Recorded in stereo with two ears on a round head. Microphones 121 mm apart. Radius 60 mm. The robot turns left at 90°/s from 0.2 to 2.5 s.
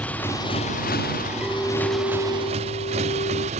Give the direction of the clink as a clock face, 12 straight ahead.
6 o'clock.